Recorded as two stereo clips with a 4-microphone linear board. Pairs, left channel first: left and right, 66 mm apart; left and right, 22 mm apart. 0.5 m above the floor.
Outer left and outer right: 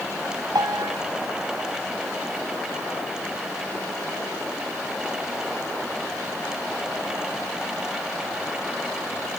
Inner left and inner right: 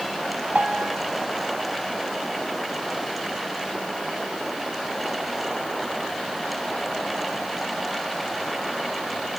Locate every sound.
0.6 s a piano: 85° right, 2 m